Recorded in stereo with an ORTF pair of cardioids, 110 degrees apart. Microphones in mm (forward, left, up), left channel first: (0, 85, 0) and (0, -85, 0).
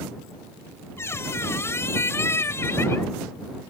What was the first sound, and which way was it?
A squeak, 15° left.